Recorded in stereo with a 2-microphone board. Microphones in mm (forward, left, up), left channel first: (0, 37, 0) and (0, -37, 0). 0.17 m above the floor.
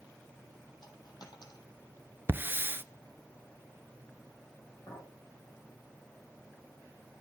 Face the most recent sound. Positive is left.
turn(degrees=60)  # may be behind; listen again after turning